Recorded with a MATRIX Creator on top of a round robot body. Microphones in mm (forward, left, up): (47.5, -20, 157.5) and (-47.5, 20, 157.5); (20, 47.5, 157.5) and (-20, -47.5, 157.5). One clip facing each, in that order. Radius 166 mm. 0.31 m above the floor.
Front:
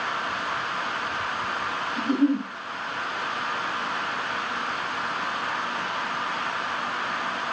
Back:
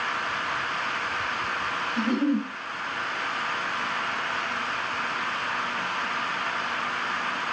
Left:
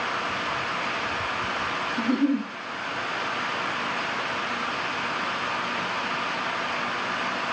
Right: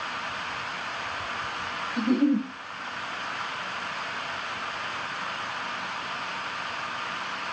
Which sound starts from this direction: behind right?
A giggle, at 2.0 s.